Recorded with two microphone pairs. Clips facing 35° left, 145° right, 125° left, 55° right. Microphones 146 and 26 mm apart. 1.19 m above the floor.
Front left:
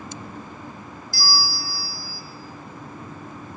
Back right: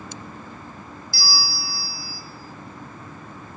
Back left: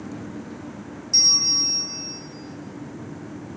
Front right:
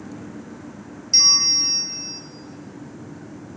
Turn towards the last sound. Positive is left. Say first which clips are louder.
# front left 3 dB, front right 3 dB
turn(degrees=-5)